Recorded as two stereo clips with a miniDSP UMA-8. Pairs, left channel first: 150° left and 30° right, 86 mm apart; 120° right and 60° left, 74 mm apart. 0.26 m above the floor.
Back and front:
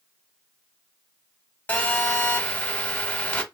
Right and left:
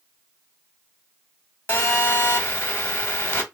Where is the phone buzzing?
155° right, 0.6 m.